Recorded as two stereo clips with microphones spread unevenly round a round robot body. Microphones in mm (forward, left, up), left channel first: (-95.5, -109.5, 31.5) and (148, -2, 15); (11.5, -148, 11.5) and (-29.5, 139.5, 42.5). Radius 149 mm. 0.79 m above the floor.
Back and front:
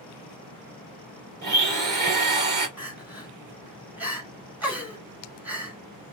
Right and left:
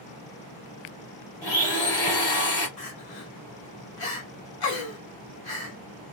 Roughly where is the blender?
Ahead right.